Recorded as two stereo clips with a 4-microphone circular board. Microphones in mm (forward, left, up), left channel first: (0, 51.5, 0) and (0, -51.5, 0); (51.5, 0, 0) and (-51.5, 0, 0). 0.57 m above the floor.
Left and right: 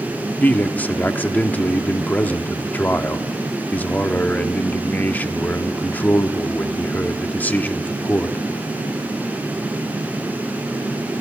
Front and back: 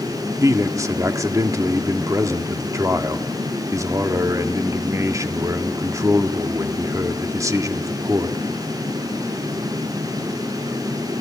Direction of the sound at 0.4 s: 155° left.